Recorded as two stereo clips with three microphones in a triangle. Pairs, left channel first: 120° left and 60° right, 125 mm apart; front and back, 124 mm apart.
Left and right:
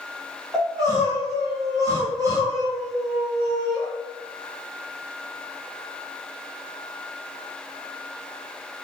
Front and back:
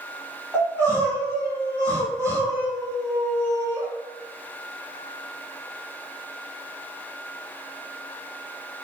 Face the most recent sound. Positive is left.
turn(degrees=-115)